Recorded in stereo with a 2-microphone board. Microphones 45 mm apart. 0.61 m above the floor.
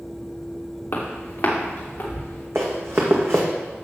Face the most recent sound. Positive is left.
turn(degrees=-70)  # may be behind; listen again after turning